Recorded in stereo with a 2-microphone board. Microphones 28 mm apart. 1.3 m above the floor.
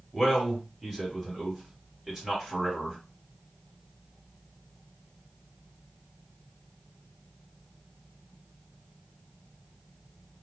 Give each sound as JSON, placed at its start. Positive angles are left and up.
{"t": 0.1, "sound": "a man speaking", "side_deg": -5, "distance_m": 1.6}